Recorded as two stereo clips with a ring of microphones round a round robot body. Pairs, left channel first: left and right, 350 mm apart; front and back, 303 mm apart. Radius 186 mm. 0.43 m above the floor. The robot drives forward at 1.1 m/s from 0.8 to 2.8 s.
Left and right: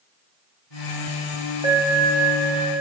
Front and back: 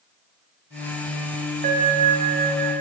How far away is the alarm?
About 3.5 m.